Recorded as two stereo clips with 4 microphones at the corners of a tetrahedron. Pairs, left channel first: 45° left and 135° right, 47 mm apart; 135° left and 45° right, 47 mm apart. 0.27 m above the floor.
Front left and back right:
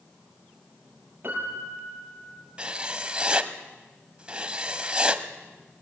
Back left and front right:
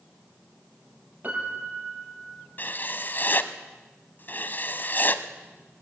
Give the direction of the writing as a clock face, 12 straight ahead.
7 o'clock.